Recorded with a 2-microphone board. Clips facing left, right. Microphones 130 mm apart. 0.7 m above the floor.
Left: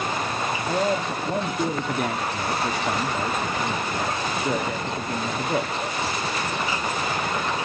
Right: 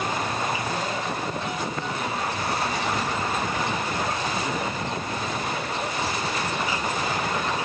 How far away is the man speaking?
About 1.2 m.